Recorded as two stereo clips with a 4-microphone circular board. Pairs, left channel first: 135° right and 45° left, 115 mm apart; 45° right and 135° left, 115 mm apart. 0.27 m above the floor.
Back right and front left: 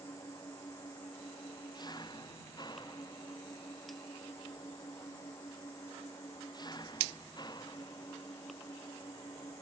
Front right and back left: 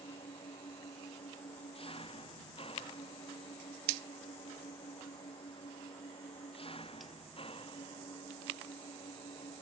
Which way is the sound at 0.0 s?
80° right.